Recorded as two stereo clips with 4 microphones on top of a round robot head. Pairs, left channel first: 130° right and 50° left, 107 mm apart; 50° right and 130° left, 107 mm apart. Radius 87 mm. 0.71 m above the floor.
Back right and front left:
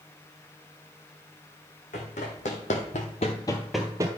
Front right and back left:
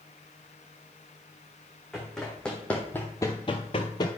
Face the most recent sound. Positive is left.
turn(degrees=0)